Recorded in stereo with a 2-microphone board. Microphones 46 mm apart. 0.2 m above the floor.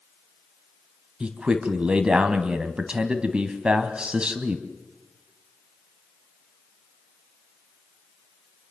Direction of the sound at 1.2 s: 20° right (ahead or behind).